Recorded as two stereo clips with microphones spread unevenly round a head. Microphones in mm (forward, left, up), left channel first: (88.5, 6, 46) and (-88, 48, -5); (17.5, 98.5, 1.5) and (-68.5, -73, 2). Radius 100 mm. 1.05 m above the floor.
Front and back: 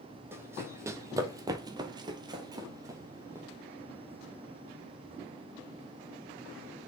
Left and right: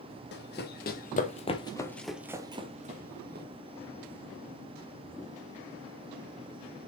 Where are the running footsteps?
80° left, 1.9 m; by 3.5 s 105° right, 1.6 m.